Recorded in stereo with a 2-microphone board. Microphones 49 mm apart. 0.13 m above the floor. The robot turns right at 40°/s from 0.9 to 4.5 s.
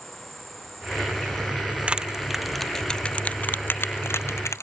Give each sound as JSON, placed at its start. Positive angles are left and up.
{"t": 0.0, "sound": "an insect", "azimuth_deg": 5}
{"t": 1.9, "sound": "crushing", "side_deg": -25}